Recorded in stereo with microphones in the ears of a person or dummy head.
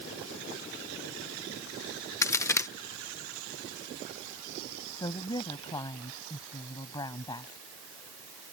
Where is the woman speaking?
15° left (ahead or behind).